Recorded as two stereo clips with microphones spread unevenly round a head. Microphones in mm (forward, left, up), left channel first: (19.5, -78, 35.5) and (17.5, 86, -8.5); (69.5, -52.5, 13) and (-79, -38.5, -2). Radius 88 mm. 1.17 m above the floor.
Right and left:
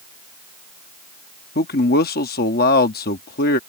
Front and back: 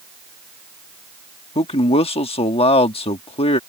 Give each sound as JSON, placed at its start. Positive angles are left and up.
{"t": 1.6, "sound": "a man speaking", "azimuth_deg": -55}